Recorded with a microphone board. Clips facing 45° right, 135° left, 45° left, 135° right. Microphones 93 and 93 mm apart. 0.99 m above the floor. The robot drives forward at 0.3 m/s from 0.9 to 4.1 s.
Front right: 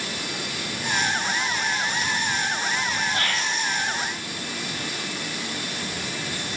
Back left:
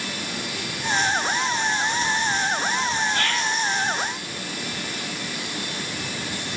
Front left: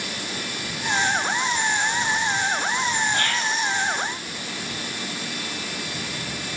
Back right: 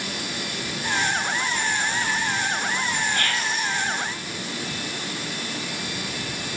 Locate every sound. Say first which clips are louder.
3.1 s whispering: back left 2 dB, front left 1 dB; straight ahead, 0.7 m; by 3.7 s 5° left, 0.6 m